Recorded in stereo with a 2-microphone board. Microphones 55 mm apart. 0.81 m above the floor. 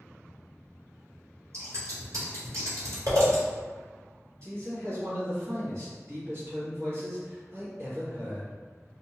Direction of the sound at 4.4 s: 50° right (ahead or behind).